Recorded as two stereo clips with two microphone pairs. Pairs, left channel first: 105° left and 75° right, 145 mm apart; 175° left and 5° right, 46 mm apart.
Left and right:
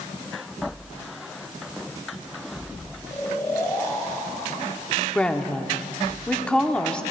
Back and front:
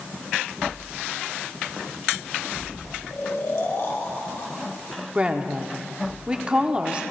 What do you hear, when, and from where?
3.1 s snoring: 170° left, 1.7 m
5.2 s a woman speaking: 35° left, 0.7 m